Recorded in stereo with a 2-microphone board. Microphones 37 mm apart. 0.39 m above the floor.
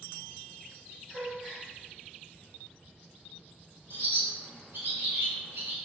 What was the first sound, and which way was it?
A gasp, 20° right (ahead or behind).